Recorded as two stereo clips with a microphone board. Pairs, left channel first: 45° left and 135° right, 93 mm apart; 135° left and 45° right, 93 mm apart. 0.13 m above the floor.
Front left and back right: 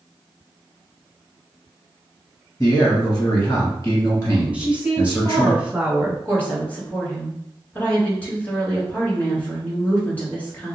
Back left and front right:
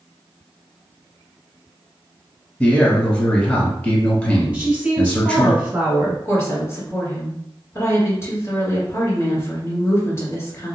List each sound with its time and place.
2.6 s a man speaking: 75° left, 1.2 m
4.5 s a woman speaking: 85° right, 1.1 m
6.2 s a woman speaking: 105° left, 1.6 m